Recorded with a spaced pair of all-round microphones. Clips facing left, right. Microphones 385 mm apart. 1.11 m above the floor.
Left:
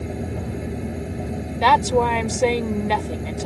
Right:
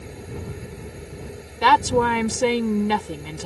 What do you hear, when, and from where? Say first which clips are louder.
0.0 s a fan: left 7 dB; 70° left (ahead or behind)
1.6 s a woman speaking: even; 25° right (ahead or behind)